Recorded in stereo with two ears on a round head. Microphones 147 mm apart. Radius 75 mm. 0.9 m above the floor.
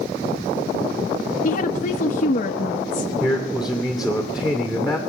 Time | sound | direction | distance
1.4 | a woman speaking | 50° left (ahead or behind) | 0.9 m
3.2 | a man speaking | 5° right (ahead or behind) | 2 m